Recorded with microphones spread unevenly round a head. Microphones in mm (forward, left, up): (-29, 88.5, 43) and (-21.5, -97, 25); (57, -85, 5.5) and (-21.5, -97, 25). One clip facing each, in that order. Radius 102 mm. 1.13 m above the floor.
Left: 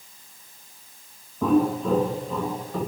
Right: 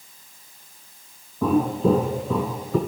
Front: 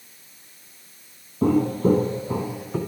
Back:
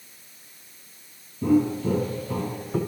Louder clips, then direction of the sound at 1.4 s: Right 1 dB, front 2 dB; 5° left.